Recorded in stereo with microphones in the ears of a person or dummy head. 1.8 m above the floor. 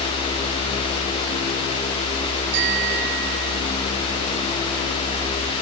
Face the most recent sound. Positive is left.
turn(degrees=-55)  # may be behind; listen again after turning